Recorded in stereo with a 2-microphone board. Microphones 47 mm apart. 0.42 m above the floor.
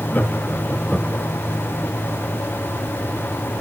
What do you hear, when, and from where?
0.1 s laughter: 35° left (ahead or behind), 2.5 m; by 1.3 s 10° right (ahead or behind), 1.2 m